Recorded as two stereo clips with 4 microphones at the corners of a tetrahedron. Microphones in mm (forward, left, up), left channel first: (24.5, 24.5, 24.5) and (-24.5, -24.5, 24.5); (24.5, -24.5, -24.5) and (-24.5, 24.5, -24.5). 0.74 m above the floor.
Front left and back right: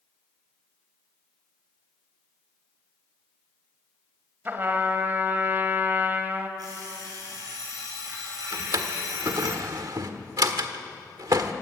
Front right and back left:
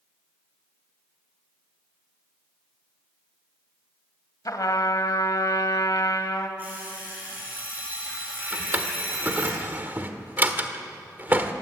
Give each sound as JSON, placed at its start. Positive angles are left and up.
{"t": 4.5, "sound": "a trumpet", "azimuth_deg": -75, "distance_m": 1.9}
{"t": 6.6, "sound": "an alarm clock", "azimuth_deg": -160, "distance_m": 7.5}
{"t": 8.5, "sound": "a drawer", "azimuth_deg": -160, "distance_m": 1.4}